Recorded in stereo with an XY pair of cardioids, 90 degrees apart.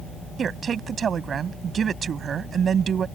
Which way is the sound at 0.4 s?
55° right.